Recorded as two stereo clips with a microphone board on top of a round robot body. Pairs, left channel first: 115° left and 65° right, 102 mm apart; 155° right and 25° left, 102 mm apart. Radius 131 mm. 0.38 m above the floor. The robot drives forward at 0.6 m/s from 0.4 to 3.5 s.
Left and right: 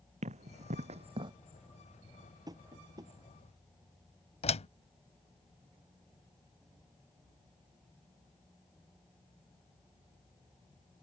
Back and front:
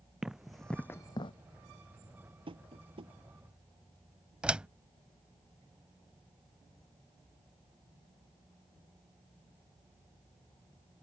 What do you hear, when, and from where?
0.2 s running footsteps: 60° right; by 1.3 s 120° right
2.5 s tapping: 15° right
4.4 s a door slam: 105° left